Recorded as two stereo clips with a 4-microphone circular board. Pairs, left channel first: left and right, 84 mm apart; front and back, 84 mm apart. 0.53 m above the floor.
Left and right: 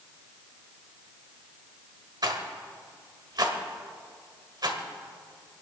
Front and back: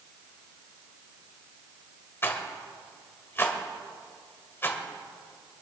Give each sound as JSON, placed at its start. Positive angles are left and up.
{"t": 2.2, "sound": "a rattle", "azimuth_deg": -60, "distance_m": 1.6}